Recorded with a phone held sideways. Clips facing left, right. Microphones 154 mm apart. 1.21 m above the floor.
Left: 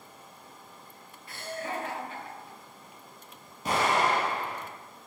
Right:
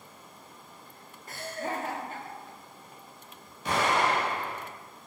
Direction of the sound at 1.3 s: 45° right (ahead or behind).